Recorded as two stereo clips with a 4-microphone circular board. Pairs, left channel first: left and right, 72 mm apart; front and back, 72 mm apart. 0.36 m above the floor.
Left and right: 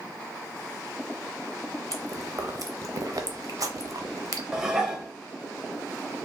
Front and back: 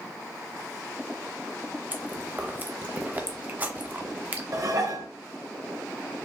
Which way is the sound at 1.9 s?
120° right.